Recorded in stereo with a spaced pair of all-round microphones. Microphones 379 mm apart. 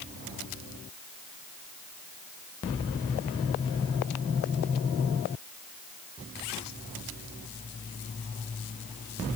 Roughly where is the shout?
No shout in this recording.